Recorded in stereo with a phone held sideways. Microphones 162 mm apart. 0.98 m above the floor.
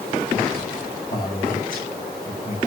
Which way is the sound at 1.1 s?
65° left (ahead or behind).